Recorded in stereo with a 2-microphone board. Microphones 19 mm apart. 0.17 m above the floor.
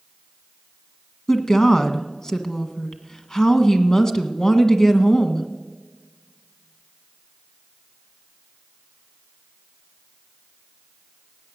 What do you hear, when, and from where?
1.3 s a woman speaking: 30° left (ahead or behind), 1.3 m